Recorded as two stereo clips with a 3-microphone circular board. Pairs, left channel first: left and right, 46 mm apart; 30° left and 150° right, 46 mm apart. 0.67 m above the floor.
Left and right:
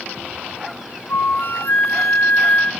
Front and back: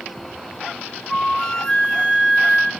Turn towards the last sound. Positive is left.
turn(degrees=105)